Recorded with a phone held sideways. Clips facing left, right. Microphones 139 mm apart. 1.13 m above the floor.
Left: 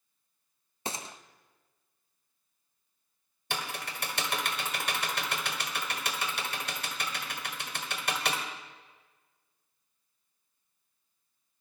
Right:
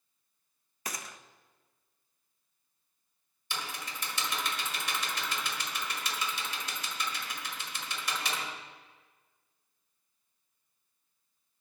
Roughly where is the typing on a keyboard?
Left.